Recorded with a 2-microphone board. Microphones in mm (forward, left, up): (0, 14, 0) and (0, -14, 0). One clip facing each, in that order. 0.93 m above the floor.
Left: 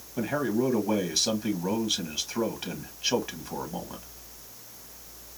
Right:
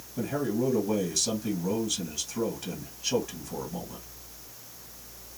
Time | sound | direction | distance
0.2 | a man speaking | 35° left (ahead or behind) | 1.5 m